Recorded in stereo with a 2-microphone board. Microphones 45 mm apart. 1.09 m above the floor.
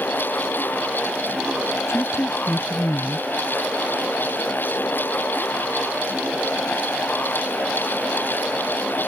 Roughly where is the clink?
No clink in this recording.